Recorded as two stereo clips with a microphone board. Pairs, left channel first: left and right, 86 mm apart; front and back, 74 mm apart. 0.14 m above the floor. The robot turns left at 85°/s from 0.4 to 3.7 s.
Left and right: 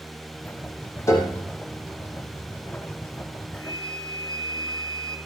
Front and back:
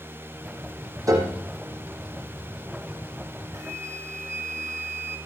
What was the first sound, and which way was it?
A piano, 145° left.